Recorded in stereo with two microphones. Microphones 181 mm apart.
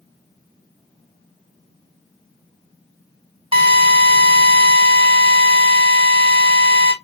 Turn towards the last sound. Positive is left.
turn(degrees=-30)  # may be behind; listen again after turning